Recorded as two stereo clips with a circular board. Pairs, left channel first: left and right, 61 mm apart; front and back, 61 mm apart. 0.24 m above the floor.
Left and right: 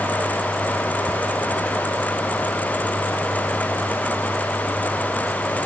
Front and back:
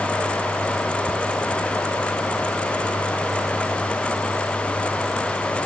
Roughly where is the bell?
No bell in this recording.